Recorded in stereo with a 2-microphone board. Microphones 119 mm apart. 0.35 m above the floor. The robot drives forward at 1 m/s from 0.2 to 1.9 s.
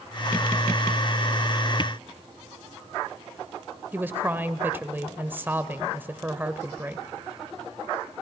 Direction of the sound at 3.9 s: 15° right (ahead or behind).